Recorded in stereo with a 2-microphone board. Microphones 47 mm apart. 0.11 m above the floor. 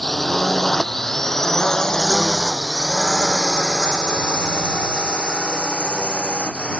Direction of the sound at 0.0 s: 5° left (ahead or behind).